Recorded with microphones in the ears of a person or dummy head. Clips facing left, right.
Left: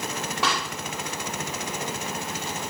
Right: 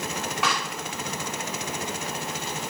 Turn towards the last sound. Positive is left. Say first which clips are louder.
# left 2 dB
turn(degrees=30)  # may be behind; listen again after turning